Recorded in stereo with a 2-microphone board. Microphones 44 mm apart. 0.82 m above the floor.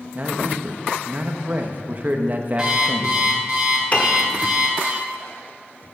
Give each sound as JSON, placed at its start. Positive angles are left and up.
{"t": 0.1, "sound": "a man speaking", "side_deg": -35, "distance_m": 0.9}
{"t": 2.6, "sound": "an alarm clock", "side_deg": -15, "distance_m": 3.5}
{"t": 3.9, "sound": "a piano", "side_deg": 35, "distance_m": 1.4}